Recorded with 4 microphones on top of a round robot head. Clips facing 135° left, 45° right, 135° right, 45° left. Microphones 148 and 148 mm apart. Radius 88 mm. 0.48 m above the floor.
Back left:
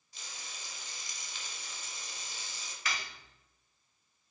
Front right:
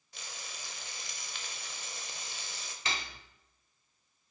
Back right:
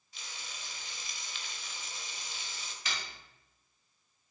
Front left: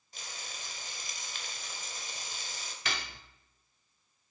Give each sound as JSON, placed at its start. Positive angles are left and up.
{"t": 0.1, "sound": "frying", "azimuth_deg": -5, "distance_m": 0.9}
{"t": 2.9, "sound": "cutlery clinking", "azimuth_deg": 20, "distance_m": 0.5}